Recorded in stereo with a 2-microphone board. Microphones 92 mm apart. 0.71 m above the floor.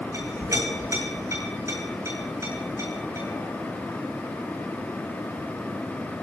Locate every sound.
0.1 s a clink: 30° right (ahead or behind), 7 m